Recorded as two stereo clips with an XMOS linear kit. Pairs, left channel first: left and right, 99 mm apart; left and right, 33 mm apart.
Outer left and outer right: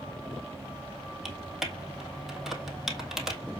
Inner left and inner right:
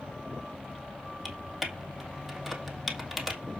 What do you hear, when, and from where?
1.2 s typing on a keyboard: 5° right (ahead or behind), 2.0 m